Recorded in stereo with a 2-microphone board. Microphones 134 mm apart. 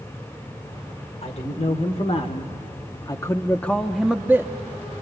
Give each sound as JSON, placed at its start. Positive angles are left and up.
{"t": 1.2, "sound": "a man speaking", "side_deg": 50, "distance_m": 1.8}